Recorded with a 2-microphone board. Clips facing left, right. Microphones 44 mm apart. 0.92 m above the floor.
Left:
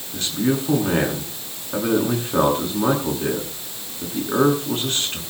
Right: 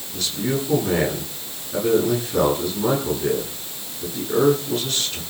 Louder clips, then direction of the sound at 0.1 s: Left 3 dB; 35° left (ahead or behind).